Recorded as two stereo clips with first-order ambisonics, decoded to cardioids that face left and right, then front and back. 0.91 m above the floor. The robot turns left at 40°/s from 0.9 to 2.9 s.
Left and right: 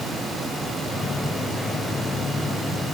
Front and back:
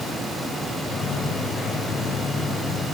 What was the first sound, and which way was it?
Only background noise.